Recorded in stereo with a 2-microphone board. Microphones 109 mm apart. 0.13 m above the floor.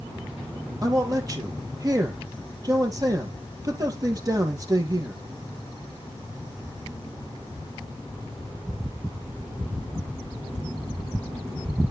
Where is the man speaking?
35° right (ahead or behind), 3 m.